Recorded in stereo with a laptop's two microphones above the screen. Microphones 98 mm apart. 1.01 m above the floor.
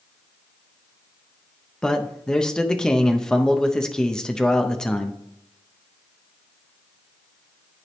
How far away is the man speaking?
About 0.6 m.